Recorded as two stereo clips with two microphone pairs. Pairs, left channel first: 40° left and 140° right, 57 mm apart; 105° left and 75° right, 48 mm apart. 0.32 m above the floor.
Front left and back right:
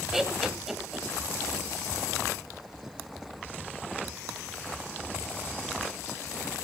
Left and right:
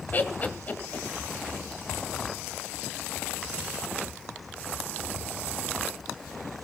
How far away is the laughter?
About 1.7 m.